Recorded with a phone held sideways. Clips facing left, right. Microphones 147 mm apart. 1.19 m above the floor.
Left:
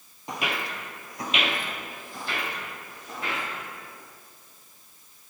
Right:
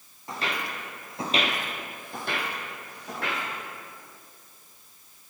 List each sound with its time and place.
0.3 s footsteps: 20° left (ahead or behind), 1.3 m; by 3.4 s 65° right (ahead or behind), 3.5 m